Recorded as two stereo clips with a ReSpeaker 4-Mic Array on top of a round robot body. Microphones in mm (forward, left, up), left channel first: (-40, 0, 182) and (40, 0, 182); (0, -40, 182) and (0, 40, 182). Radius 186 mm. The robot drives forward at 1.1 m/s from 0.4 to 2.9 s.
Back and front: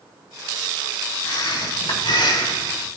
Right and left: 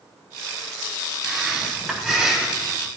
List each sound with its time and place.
1.2 s breathing: 170° left, 4 m